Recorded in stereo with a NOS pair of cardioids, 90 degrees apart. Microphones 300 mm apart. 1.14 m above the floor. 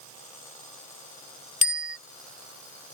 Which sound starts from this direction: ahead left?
A bicycle bell, at 1.6 s.